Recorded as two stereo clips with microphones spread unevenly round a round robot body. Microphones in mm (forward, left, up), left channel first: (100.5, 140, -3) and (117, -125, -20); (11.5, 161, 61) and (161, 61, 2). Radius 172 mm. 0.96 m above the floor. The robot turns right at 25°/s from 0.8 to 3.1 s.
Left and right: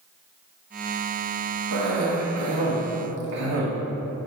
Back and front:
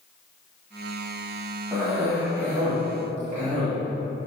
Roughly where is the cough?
Behind right.